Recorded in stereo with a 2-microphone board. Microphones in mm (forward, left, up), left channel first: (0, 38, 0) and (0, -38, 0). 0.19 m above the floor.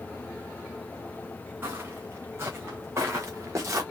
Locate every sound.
1.6 s footsteps: 30° right (ahead or behind), 3.5 m; by 3.8 s 40° right (ahead or behind), 2 m